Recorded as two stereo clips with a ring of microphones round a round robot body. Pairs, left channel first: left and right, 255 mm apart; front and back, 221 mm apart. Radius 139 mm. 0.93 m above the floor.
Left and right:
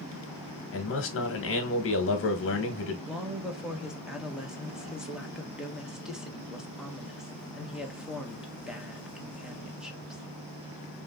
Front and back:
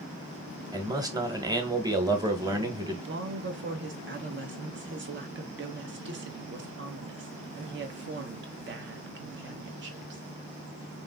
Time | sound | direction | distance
0.7 | a man speaking | 110° left | 1.1 m
3.1 | a woman speaking | 175° right | 0.9 m